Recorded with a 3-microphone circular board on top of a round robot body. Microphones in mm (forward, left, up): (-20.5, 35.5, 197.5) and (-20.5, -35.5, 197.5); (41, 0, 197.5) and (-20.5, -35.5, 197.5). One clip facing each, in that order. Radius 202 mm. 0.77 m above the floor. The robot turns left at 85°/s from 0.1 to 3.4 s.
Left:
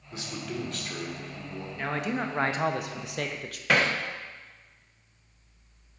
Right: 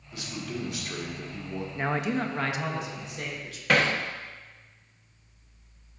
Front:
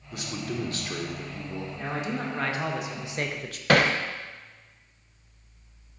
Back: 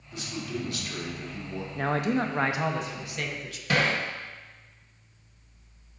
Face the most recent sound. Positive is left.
turn(degrees=0)